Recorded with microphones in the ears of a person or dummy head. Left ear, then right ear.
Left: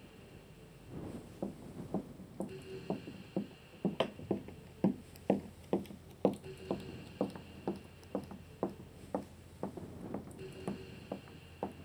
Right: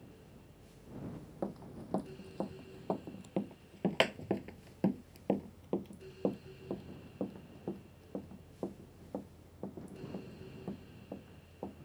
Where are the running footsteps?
70° right (ahead or behind); by 11.8 s 65° left (ahead or behind).